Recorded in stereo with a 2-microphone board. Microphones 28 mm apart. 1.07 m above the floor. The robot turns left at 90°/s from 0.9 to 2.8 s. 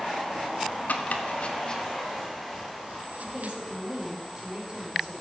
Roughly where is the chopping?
Left.